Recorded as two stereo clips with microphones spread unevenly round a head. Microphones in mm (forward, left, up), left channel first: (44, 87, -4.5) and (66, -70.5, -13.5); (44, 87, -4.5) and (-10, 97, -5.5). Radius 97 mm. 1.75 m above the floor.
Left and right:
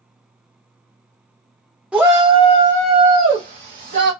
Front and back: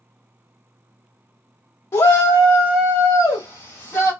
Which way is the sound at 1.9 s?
5° left.